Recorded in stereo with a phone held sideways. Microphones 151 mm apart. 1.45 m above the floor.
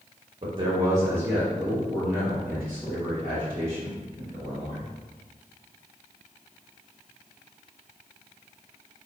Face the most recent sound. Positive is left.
turn(degrees=20)  # may be behind; listen again after turning